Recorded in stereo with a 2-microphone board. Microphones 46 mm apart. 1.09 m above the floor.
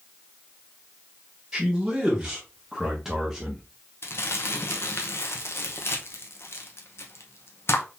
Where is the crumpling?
60° left (ahead or behind), 0.8 m.